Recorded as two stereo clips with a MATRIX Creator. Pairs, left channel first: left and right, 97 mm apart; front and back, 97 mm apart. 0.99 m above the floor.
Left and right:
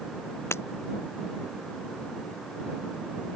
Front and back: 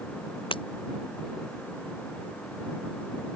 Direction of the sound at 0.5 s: 25° left.